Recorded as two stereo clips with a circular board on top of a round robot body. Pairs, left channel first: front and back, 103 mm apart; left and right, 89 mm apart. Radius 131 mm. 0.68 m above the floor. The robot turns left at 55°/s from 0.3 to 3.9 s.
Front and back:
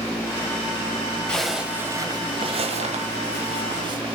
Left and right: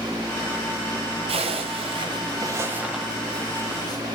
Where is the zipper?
80° right, 1.4 m; by 4.2 s 135° left, 1.4 m.